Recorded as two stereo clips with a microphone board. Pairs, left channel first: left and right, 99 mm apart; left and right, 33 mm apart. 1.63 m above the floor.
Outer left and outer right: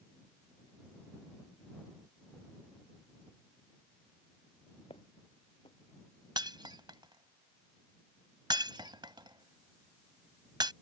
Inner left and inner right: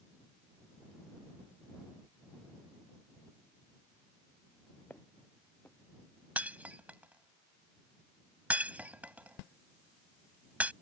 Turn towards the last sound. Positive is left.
turn(degrees=-50)  # may be behind; listen again after turning